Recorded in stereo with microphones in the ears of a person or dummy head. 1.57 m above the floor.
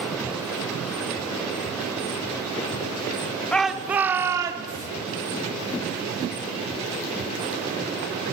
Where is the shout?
5° left (ahead or behind), 0.8 m; by 4.9 s 30° right (ahead or behind), 1.6 m.